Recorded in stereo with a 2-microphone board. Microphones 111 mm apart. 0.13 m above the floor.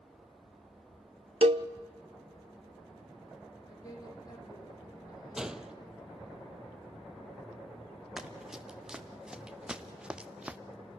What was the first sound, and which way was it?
A cowbell, 65° right (ahead or behind).